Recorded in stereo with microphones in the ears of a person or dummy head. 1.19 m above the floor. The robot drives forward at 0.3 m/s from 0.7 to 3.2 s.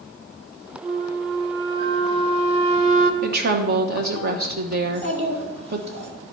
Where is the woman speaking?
50° right (ahead or behind), 1.0 m.